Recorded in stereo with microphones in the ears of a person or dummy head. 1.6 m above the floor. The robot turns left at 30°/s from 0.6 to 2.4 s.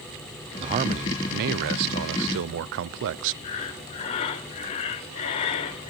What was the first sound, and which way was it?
A man speaking, 35° right.